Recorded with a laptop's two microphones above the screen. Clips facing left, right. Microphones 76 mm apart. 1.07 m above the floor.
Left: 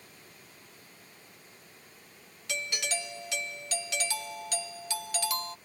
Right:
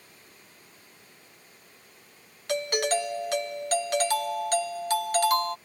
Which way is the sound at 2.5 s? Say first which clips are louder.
Right 10 dB; 50° right (ahead or behind).